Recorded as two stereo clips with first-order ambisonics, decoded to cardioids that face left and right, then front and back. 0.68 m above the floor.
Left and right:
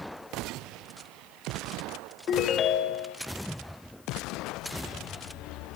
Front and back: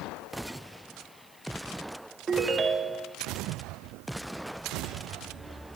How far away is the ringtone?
About 0.5 m.